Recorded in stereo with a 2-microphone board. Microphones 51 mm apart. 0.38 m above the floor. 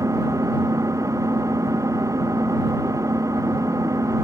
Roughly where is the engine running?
Right.